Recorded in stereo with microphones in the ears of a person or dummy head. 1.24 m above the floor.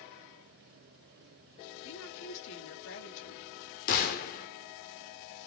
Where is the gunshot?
50° left (ahead or behind), 1.3 m.